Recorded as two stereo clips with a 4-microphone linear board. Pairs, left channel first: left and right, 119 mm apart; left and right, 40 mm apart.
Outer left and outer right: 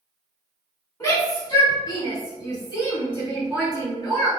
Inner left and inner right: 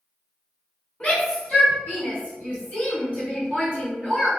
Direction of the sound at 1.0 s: 30° left (ahead or behind).